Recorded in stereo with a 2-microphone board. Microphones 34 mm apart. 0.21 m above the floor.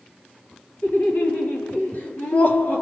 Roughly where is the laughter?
Left.